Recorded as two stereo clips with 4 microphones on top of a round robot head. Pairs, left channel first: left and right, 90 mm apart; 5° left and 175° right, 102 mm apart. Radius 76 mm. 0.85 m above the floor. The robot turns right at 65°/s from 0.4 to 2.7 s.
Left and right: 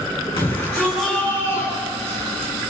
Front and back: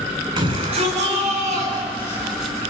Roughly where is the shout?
Behind left.